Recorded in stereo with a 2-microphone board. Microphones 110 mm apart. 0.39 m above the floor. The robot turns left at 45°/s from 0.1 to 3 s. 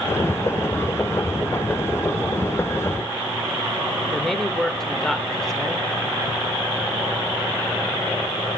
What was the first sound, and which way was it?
A man speaking, 5° left (ahead or behind).